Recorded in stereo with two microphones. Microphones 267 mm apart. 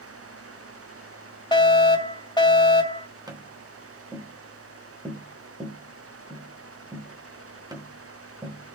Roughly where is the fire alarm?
Centre.